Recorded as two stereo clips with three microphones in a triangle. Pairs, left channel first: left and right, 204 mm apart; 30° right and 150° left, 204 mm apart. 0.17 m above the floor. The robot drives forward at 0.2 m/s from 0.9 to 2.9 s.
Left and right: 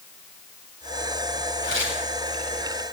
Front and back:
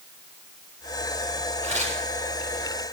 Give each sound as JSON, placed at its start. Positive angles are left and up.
{"t": 1.6, "sound": "tearing paper", "azimuth_deg": 95, "distance_m": 8.0}